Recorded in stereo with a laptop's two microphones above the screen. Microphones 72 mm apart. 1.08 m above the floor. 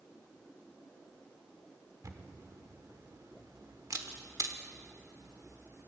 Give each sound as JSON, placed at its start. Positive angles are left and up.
{"t": 2.0, "sound": "a camera shutter", "side_deg": -55, "distance_m": 1.0}